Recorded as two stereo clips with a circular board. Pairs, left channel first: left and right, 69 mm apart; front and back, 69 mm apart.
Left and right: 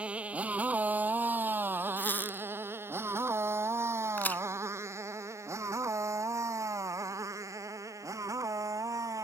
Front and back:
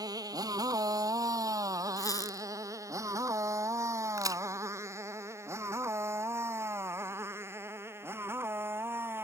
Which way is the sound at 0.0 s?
165° right.